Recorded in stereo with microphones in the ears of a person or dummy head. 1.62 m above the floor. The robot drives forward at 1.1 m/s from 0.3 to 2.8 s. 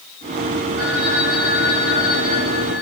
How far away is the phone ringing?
About 5 m.